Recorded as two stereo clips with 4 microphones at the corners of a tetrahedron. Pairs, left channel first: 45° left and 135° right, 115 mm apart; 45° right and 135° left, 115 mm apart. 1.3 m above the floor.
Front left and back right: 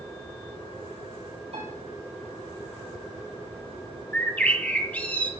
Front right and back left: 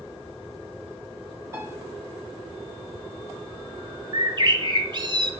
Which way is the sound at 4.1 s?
115° left.